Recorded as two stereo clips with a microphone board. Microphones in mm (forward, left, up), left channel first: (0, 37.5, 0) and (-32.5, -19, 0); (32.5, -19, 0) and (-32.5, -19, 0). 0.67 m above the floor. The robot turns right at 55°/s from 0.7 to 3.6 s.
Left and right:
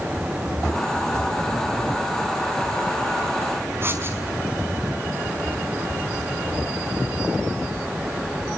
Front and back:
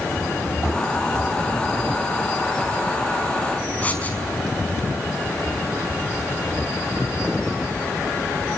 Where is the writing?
70° right, 5 m.